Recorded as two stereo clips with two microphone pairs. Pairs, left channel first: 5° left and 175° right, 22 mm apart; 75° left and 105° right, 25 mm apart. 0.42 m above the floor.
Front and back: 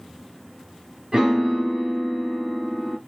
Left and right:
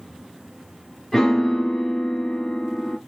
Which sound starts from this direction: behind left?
A piano, at 1.1 s.